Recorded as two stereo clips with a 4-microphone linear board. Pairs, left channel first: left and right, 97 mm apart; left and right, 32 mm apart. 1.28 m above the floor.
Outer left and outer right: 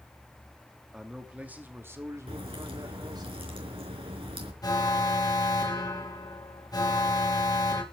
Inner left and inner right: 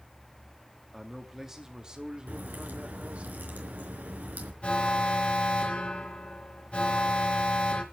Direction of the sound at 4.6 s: 40° left (ahead or behind).